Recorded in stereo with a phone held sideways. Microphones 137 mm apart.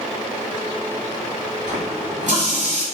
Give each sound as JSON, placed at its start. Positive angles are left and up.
{"t": 1.7, "sound": "a running tap", "side_deg": -70, "distance_m": 6.0}